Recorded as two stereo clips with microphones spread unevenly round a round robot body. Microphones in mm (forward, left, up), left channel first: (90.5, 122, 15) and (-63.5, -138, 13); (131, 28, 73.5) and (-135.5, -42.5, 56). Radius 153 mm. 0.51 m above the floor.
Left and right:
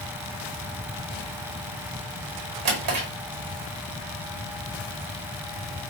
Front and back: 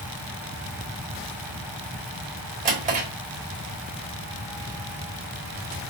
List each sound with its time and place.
2.6 s a drawer: 105° right, 1.3 m